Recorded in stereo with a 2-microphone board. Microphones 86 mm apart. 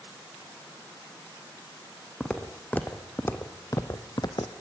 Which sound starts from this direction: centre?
Footsteps, at 2.2 s.